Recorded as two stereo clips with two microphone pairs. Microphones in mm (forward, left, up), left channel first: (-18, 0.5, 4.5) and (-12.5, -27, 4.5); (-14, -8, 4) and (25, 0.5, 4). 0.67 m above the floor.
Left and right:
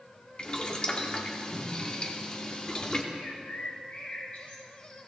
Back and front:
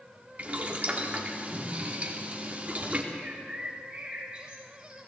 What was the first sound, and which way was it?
Boiling, 55° left.